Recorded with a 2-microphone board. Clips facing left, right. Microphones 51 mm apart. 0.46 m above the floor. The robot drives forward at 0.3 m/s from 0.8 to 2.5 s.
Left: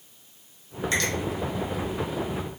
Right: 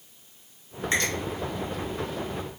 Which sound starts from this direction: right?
A finger snap, at 0.9 s.